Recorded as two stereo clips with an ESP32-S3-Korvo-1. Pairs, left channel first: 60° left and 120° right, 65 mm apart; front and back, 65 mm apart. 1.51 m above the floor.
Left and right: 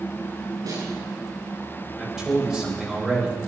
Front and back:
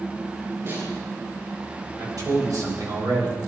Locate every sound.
0.7 s a snare drum: 130° right, 9.5 m
2.0 s a man speaking: 155° left, 7 m